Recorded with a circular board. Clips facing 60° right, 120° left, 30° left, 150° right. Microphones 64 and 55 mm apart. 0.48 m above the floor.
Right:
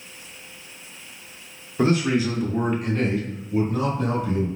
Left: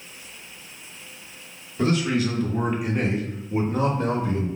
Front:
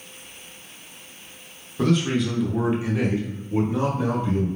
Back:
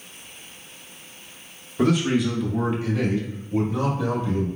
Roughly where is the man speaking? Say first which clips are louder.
Right 2 dB, back 1 dB; right.